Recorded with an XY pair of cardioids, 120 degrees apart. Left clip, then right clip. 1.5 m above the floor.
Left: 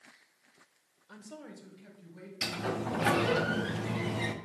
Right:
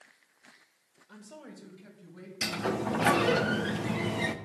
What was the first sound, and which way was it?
A man speaking, 20° left.